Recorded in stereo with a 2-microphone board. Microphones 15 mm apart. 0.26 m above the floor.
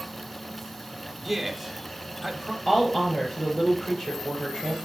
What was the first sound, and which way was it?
A man speaking, centre (ahead or behind).